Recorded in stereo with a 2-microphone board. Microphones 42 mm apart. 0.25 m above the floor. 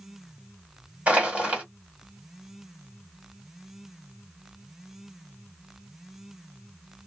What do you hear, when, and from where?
1.1 s crushing: 35° right (ahead or behind), 1.8 m